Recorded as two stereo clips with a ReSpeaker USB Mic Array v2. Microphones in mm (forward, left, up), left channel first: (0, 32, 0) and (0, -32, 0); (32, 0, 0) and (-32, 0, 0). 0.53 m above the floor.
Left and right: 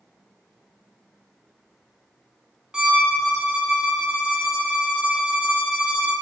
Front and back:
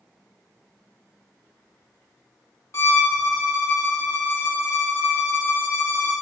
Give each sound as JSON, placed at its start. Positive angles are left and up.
{"t": 2.7, "sound": "a violin", "azimuth_deg": -15, "distance_m": 1.2}